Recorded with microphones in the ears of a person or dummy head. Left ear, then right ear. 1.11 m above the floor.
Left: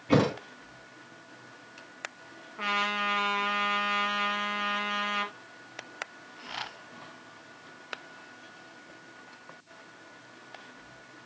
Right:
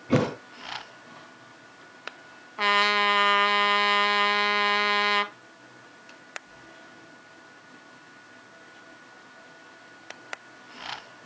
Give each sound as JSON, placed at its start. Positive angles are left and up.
{"t": 0.1, "sound": "a thud", "side_deg": 20, "distance_m": 4.0}
{"t": 2.6, "sound": "a trumpet", "side_deg": -45, "distance_m": 1.3}